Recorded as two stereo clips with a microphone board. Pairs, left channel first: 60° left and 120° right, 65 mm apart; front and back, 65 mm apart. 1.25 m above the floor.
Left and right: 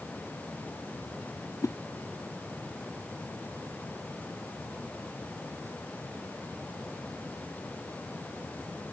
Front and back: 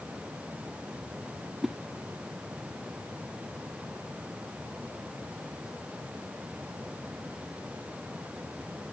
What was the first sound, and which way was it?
A whoosh, 100° left.